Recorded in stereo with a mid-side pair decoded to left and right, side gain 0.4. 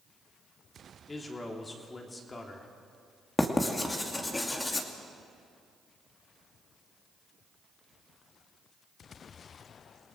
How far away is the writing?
About 2.5 m.